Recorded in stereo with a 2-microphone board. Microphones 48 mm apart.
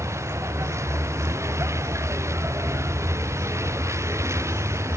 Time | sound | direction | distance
0.0 | a vehicle | 80° right | ?